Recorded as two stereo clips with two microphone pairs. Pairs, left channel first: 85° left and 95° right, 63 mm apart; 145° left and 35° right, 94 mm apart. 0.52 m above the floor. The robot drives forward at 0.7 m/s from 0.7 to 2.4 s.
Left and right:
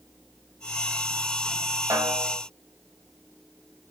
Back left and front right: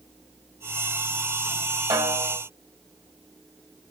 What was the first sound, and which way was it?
A snare drum, 75° right.